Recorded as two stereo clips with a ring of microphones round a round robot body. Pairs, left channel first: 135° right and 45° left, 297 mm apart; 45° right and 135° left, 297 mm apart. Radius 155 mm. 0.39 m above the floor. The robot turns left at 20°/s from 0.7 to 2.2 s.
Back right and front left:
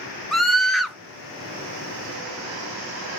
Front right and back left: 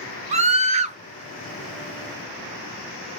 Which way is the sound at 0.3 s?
135° left.